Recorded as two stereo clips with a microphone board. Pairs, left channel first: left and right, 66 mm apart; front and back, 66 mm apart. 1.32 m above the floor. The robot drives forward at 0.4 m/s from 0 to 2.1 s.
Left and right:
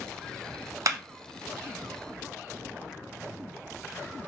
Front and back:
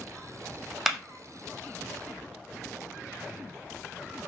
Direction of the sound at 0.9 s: 95° right.